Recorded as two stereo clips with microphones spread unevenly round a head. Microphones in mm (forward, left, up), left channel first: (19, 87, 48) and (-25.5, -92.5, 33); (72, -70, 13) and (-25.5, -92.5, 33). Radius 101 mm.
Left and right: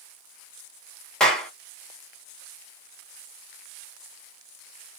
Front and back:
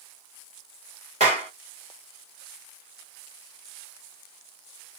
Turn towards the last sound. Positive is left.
turn(degrees=160)